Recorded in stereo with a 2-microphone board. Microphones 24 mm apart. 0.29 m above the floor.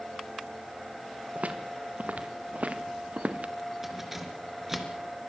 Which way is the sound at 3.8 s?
10° right (ahead or behind).